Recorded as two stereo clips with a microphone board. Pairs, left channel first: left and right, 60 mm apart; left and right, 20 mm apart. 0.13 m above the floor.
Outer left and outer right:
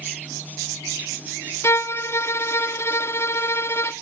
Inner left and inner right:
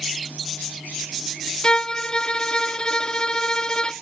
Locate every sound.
1.6 s a violin: 45° left (ahead or behind), 0.6 m